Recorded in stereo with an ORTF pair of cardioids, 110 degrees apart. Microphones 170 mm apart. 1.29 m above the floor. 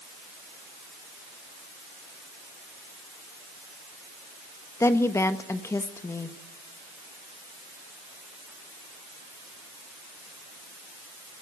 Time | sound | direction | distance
4.8 | a woman speaking | 15° left | 1.3 m